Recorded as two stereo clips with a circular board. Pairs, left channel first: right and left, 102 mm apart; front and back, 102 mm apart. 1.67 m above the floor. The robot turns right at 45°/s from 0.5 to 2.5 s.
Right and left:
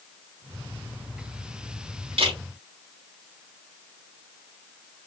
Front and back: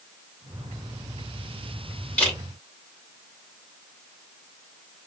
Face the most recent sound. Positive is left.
turn(degrees=90)